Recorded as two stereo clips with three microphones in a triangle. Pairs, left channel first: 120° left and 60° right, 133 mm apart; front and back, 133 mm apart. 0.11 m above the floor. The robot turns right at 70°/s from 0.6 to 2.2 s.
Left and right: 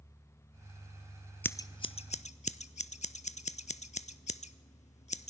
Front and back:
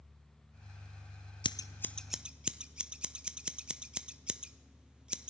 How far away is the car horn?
I don't hear a car horn.